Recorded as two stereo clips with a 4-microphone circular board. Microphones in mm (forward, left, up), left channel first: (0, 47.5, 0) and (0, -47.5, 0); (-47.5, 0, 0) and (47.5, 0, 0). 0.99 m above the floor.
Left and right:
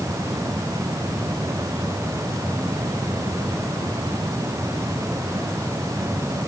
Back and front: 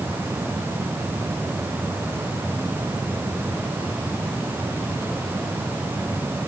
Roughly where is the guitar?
No guitar in this recording.